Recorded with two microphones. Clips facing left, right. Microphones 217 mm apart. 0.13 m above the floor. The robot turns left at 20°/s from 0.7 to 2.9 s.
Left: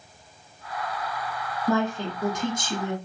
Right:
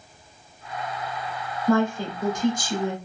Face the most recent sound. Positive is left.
turn(degrees=25)  # may be behind; listen again after turning